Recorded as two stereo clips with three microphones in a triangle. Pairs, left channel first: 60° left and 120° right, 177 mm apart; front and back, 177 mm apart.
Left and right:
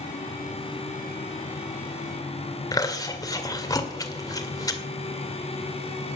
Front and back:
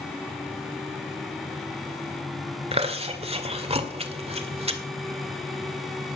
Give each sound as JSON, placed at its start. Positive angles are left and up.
{"t": 2.7, "sound": "chewing", "azimuth_deg": 125, "distance_m": 1.8}